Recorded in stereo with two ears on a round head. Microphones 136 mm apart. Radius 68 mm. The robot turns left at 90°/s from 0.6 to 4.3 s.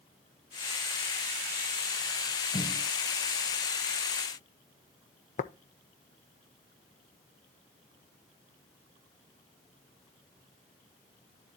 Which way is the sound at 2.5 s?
30° left (ahead or behind).